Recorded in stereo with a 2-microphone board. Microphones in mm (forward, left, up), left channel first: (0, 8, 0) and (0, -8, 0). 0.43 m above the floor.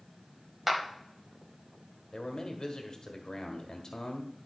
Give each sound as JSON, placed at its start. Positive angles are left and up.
{"t": 0.7, "sound": "a clap", "side_deg": -15, "distance_m": 1.7}
{"t": 2.1, "sound": "a man speaking", "side_deg": 45, "distance_m": 1.5}